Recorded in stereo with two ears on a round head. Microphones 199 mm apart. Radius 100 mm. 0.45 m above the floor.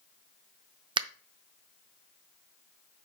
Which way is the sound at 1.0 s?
20° right (ahead or behind).